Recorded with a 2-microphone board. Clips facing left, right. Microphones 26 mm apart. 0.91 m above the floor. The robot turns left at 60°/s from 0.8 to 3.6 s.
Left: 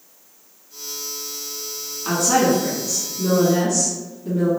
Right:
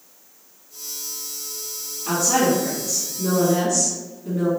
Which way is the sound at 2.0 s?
100° left.